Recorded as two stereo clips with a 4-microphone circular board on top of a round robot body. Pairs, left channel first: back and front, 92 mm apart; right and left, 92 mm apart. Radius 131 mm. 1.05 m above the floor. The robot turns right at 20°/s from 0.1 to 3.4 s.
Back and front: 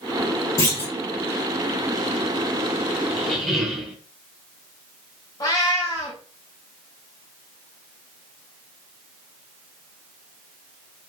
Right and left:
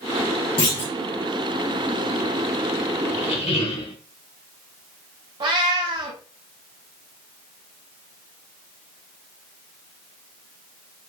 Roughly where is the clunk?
Behind right.